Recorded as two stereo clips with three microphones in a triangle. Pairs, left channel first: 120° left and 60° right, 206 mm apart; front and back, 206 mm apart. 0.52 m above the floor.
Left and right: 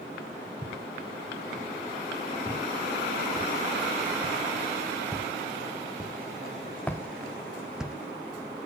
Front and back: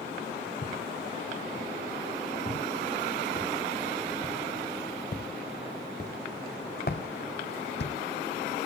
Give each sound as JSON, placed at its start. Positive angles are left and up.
{"t": 0.6, "sound": "footsteps", "azimuth_deg": 50, "distance_m": 5.5}